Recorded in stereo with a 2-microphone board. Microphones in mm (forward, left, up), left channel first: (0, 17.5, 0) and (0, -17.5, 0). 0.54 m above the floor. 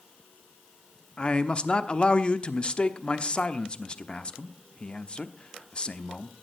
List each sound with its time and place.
1.2 s a man speaking: 30° left (ahead or behind), 1.0 m